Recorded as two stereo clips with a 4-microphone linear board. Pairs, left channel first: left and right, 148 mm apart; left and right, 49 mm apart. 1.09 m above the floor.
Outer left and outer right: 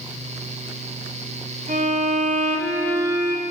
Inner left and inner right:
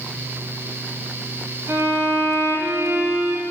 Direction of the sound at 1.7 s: 70° right (ahead or behind).